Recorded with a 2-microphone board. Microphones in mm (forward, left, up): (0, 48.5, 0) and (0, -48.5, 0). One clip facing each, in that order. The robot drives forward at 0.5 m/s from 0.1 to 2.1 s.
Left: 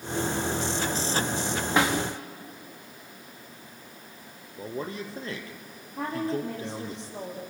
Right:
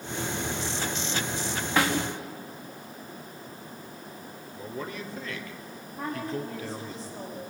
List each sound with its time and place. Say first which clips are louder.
1.8 s a snare drum: left 1 dB; 20° left (ahead or behind), 4.5 m
4.6 s a man speaking: left 3 dB; 35° left (ahead or behind), 3 m
6.0 s a woman speaking: left 3 dB; 75° left (ahead or behind), 7.5 m